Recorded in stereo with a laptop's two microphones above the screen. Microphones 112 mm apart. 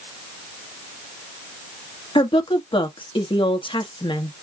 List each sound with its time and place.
2.1 s a woman speaking: 50° left (ahead or behind), 1.3 m